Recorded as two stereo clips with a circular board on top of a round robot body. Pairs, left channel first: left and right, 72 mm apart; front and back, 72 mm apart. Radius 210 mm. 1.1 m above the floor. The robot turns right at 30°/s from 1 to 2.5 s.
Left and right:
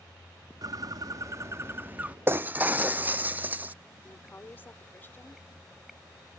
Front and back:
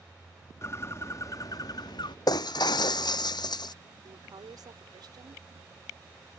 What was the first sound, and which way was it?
A bird, 55° right.